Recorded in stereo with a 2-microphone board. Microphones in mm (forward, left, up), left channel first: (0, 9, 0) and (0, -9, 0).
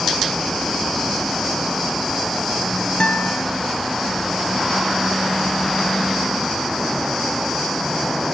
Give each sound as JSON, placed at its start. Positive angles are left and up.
{"t": 3.0, "sound": "a guitar", "side_deg": 60, "distance_m": 1.2}